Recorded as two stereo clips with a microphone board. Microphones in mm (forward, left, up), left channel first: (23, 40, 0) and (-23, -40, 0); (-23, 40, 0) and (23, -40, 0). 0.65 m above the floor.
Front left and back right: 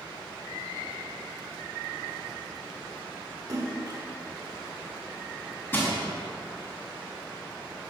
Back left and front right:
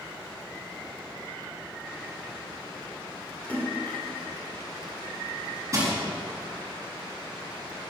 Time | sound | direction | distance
3.5 | a splash | 170° right | 2.5 m
5.7 | crushing | 5° right | 5 m